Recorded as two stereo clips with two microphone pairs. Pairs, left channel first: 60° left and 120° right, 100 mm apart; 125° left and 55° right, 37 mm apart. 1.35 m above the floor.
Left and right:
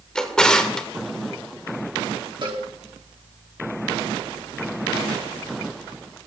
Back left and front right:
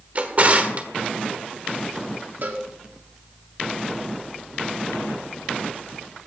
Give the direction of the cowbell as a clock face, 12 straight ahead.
3 o'clock.